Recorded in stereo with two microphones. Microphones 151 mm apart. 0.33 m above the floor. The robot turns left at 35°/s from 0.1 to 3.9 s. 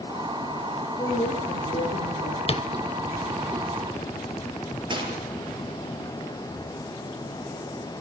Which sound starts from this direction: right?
A gunshot, at 4.9 s.